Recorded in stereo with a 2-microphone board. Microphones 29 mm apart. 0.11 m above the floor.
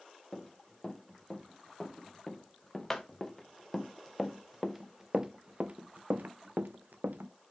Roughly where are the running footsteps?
Centre.